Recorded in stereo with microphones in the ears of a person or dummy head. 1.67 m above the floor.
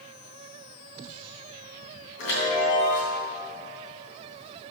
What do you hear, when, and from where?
2.2 s a chime: 60° left (ahead or behind), 3 m